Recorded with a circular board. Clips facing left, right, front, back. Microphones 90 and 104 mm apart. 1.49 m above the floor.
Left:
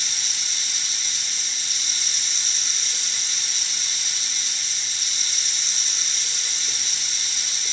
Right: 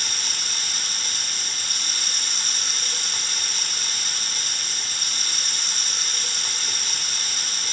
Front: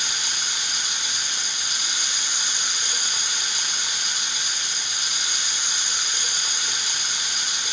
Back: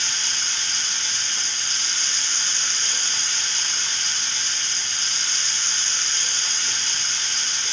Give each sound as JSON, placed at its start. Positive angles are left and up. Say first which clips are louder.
{"t": 0.0, "sound": "running water", "louder": "right 4 dB, front 1 dB", "azimuth_deg": -75, "distance_m": 0.7}